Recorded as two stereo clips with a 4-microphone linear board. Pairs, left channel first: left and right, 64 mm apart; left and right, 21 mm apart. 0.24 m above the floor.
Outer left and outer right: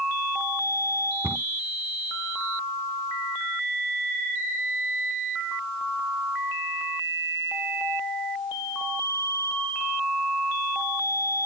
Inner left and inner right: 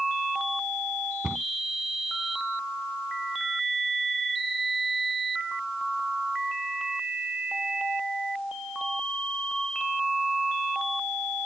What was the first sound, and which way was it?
A cupboard door, 40° right (ahead or behind).